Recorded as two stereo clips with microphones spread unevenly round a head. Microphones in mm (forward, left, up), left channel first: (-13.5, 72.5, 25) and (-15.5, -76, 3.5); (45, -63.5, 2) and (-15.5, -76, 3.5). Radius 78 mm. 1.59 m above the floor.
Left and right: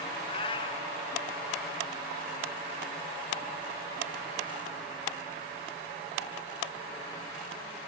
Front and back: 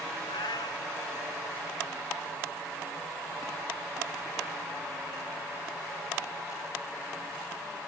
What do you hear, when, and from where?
0.3 s a cat meowing: 30° left